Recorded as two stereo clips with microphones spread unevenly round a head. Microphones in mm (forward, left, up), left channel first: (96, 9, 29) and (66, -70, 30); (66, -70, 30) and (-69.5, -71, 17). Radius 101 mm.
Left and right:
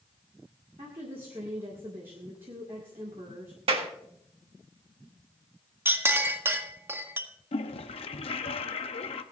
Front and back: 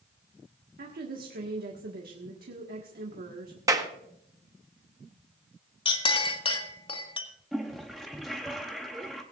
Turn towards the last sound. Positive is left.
turn(degrees=95)